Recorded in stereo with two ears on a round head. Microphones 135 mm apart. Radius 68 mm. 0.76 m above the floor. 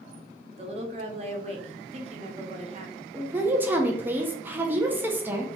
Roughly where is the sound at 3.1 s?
Centre.